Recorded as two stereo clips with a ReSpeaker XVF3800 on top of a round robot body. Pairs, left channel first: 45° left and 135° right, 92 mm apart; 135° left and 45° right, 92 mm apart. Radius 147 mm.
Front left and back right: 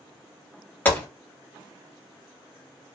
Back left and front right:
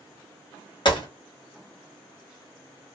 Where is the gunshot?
115° left, 1.7 m.